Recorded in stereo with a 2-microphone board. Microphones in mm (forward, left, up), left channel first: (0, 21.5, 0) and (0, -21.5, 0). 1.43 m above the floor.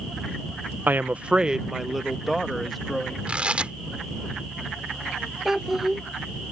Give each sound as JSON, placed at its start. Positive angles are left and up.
{"t": 0.9, "sound": "a woman speaking", "side_deg": -55}
{"t": 3.3, "sound": "tearing paper", "side_deg": -30}
{"t": 5.5, "sound": "a child speaking", "side_deg": -5}